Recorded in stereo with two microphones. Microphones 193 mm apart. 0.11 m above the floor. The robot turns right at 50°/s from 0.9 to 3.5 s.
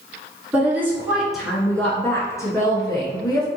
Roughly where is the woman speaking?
Centre.